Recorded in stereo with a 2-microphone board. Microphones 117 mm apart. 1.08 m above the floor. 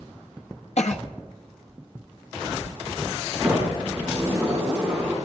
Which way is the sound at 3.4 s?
10° right (ahead or behind).